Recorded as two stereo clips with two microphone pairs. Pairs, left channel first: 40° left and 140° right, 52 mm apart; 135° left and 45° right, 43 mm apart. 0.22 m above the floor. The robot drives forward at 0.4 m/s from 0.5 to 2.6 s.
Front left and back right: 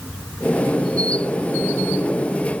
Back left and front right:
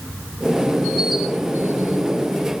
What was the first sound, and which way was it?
Only background noise.